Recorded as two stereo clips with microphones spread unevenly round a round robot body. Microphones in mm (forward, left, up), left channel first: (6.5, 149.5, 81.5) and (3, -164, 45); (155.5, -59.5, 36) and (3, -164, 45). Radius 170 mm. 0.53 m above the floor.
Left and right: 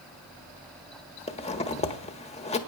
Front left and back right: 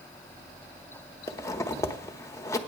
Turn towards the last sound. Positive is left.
turn(degrees=40)